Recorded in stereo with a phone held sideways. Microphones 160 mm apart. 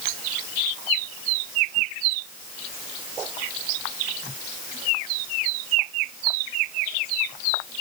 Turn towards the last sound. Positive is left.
No sound to turn to.